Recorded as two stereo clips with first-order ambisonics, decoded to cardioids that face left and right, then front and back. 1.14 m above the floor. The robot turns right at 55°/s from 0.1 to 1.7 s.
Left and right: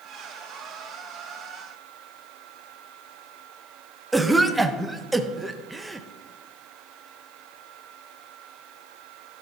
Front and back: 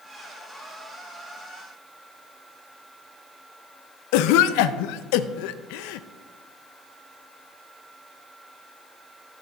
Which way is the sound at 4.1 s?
Straight ahead.